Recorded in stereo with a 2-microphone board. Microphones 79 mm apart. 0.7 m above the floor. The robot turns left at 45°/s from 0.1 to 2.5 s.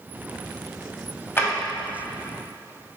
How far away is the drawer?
About 0.8 m.